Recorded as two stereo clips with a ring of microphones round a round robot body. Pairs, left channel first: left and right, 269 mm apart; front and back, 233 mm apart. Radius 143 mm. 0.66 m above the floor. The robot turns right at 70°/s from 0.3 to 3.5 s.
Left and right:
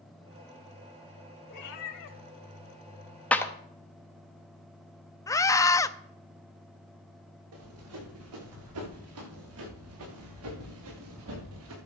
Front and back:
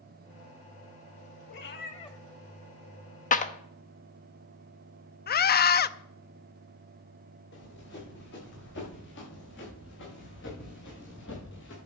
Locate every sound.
1.5 s a cat meowing: 30° left, 1.5 m; by 2.2 s 75° left, 1.5 m
3.3 s a clap: 10° left, 0.9 m; by 3.5 s 20° left, 0.9 m
5.3 s a scream: 15° left, 0.6 m
7.5 s running footsteps: 55° right, 7 m; by 11.8 s 50° right, 4 m